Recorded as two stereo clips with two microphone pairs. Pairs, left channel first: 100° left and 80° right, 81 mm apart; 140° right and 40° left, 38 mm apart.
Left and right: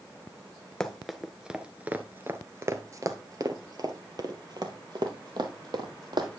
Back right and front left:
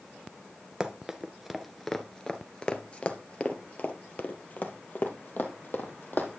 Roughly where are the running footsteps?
Ahead left.